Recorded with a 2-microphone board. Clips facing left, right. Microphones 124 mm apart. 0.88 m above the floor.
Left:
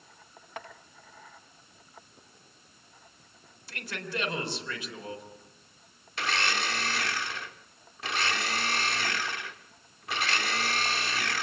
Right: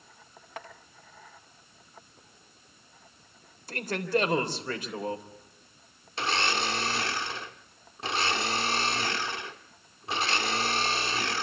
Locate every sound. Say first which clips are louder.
3.7 s a man speaking: right 9 dB; 45° right (ahead or behind), 4 m
6.2 s a blender: right 2 dB; 30° right (ahead or behind), 1.0 m